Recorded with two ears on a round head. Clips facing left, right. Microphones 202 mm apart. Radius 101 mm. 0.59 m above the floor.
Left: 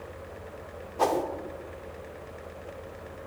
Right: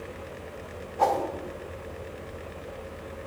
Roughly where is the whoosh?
Left.